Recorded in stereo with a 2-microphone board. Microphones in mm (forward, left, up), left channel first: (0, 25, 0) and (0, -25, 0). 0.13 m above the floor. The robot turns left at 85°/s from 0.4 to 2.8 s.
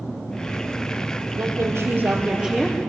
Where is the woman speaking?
65° right, 3 m; by 2.8 s 170° left, 3 m.